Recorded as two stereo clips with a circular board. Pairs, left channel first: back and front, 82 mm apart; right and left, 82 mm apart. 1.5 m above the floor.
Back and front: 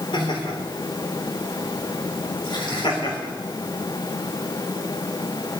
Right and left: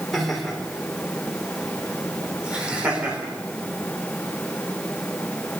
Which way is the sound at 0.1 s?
Straight behind.